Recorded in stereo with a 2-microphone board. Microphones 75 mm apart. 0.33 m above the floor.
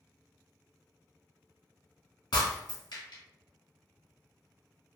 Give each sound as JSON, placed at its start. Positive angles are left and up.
{"t": 2.3, "sound": "breaking glass", "side_deg": 80, "distance_m": 1.5}